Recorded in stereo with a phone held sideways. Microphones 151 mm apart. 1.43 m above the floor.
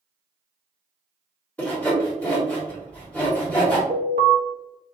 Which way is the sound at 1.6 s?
10° left (ahead or behind).